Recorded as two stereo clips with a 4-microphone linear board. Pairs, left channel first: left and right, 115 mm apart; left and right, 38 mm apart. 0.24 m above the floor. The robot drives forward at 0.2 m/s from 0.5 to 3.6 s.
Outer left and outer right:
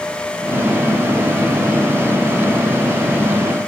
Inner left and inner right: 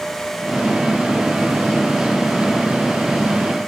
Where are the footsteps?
I don't hear footsteps.